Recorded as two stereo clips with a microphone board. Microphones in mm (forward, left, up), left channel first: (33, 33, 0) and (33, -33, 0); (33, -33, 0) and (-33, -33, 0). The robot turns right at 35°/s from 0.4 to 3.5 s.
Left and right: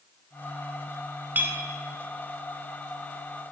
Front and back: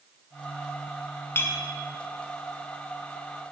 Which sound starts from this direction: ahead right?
A clink, at 1.4 s.